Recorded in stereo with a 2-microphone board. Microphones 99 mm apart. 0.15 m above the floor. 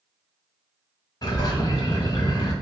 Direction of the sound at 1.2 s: 45° left (ahead or behind).